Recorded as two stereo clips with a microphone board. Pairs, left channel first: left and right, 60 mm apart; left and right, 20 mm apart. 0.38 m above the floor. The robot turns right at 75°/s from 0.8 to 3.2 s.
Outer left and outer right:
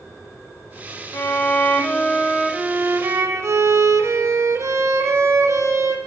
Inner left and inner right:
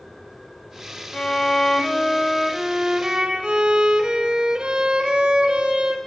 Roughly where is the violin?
Left.